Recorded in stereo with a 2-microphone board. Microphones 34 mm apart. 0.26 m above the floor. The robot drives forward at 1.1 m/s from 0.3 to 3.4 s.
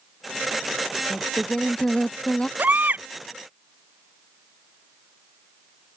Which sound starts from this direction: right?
A baby crying, at 2.6 s.